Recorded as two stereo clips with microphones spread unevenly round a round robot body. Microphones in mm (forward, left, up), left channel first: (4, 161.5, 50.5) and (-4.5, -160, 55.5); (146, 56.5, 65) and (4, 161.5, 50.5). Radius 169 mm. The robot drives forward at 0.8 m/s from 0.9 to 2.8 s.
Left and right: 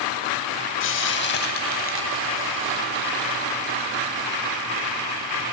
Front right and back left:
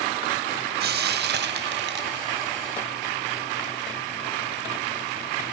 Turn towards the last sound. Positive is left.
turn(degrees=155)